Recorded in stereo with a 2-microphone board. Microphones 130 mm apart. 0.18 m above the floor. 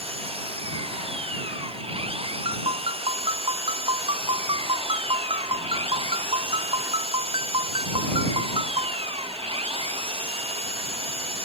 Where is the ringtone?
45° right (ahead or behind).